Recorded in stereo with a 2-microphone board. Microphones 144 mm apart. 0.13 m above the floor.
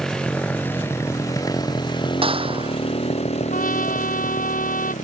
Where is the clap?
40° right (ahead or behind).